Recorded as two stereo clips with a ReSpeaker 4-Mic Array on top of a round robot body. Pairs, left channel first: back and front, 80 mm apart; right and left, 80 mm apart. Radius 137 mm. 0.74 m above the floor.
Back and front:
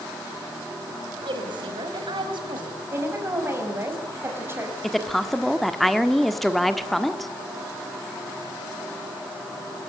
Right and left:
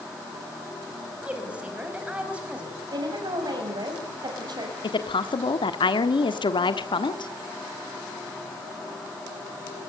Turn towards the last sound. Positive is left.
turn(degrees=-95)